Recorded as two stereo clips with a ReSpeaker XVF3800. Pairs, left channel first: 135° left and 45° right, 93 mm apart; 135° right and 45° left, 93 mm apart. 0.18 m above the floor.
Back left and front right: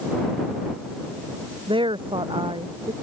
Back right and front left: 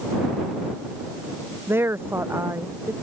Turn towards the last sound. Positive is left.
turn(degrees=-15)